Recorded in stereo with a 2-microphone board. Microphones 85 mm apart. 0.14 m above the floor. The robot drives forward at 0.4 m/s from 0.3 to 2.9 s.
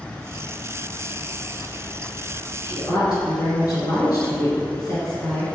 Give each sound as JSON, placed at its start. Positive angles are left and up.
{"t": 2.6, "sound": "a woman speaking", "side_deg": 45, "distance_m": 1.5}